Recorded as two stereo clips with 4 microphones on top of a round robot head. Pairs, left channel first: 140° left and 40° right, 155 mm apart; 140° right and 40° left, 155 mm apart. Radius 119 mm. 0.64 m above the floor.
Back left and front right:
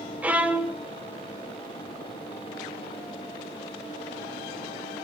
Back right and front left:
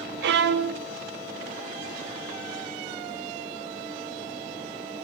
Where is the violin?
45° left, 0.7 m.